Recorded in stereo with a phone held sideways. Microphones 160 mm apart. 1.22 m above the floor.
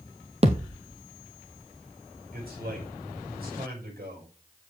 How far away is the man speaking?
About 6 m.